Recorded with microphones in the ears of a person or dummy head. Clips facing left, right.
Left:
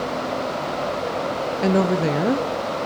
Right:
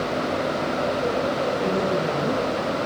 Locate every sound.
1.6 s a woman speaking: 90° left, 0.6 m